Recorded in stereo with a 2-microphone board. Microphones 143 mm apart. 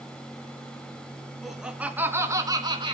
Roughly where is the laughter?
Centre.